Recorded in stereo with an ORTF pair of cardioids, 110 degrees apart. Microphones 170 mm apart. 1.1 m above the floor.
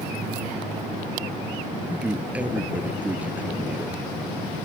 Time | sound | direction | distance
1.9 | a man speaking | 10° right | ?